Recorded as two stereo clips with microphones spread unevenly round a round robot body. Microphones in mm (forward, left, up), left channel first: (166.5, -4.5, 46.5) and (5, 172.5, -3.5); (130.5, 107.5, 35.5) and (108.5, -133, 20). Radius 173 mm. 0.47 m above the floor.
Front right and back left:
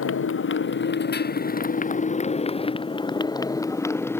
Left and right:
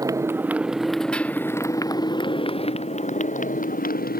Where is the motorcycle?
20° right; by 4.2 s 35° left.